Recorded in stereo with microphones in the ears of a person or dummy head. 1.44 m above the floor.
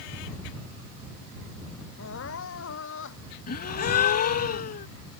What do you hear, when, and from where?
2.0 s crying: 70° left (ahead or behind)
3.5 s a gasp: 50° left (ahead or behind)